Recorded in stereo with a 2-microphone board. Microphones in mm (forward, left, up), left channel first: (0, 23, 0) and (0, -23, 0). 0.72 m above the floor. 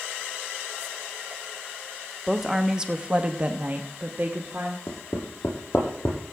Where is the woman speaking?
5° right (ahead or behind), 1.2 m; by 4.8 s 45° right (ahead or behind), 1.7 m.